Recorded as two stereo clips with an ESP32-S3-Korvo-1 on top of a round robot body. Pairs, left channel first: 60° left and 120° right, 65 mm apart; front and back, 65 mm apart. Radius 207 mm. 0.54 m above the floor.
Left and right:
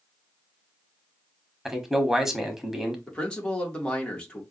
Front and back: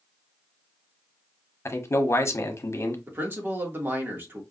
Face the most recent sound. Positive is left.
turn(degrees=135)